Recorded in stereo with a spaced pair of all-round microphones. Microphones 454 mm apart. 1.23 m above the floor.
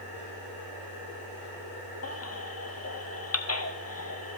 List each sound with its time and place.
0.0 s a machine running: 70° right (ahead or behind), 3.5 m
2.0 s a baby crying: 35° left (ahead or behind), 0.5 m